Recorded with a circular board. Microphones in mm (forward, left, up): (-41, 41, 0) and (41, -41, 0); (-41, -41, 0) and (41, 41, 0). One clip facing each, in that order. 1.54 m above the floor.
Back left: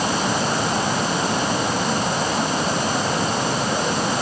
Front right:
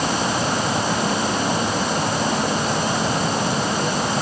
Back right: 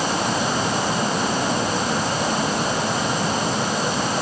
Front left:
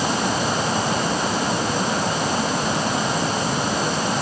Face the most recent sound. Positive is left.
No sound to turn to.